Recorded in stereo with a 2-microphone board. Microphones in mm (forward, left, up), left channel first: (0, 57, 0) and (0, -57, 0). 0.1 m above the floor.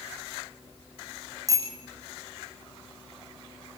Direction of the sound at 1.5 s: 30° right (ahead or behind).